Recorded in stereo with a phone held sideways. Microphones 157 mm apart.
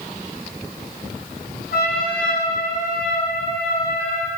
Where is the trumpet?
80° left, 6.5 m.